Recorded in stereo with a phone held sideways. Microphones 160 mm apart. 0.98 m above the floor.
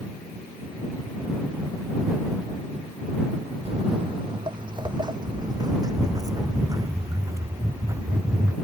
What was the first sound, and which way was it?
Footsteps, 40° right (ahead or behind).